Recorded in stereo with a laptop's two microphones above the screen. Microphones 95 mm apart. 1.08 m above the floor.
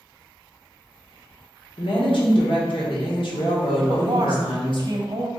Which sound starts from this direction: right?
A woman speaking, at 3.9 s.